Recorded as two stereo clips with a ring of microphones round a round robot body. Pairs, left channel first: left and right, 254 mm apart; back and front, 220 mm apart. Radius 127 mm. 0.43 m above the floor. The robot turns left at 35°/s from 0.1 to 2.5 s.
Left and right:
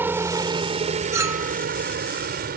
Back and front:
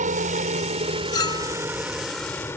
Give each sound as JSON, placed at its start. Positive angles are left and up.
{"t": 0.0, "sound": "a helicopter", "azimuth_deg": -15}
{"t": 1.1, "sound": "a clink", "azimuth_deg": -145}